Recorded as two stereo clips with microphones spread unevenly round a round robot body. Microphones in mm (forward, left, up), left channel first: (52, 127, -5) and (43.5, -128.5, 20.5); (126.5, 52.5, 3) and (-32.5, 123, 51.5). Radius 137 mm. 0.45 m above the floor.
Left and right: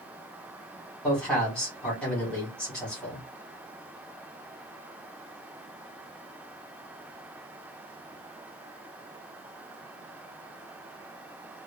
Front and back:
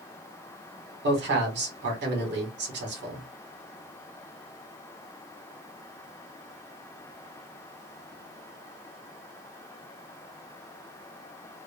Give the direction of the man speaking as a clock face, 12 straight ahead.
6 o'clock.